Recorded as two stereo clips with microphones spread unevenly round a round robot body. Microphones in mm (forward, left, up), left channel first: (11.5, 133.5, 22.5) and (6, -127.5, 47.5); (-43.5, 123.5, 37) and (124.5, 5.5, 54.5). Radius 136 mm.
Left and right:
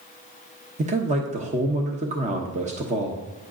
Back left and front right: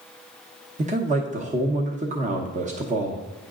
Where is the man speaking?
45° right, 1.0 m.